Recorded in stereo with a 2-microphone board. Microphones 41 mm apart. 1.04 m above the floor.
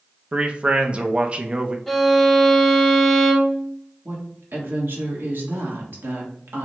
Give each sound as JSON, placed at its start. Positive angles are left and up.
{"t": 0.3, "sound": "a man speaking", "side_deg": -30, "distance_m": 0.6}
{"t": 1.9, "sound": "a violin", "side_deg": 0, "distance_m": 0.9}
{"t": 4.0, "sound": "a woman speaking", "side_deg": -60, "distance_m": 1.6}